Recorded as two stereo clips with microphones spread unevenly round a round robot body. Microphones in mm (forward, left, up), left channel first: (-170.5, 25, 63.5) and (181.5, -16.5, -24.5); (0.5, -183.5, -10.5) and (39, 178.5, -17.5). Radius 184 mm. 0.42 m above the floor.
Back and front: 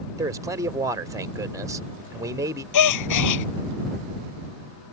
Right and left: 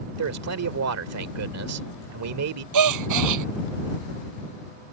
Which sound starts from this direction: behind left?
A gasp, at 2.7 s.